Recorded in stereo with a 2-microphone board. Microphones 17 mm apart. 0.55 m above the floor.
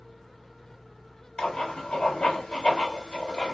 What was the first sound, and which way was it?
Writing, 85° left.